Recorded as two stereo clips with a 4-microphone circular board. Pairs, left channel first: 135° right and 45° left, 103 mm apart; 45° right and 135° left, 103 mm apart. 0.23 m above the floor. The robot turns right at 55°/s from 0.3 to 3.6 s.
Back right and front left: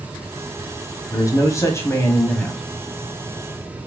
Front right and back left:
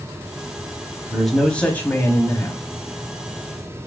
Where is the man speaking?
140° right, 1.4 m; by 2.6 s 55° right, 1.4 m.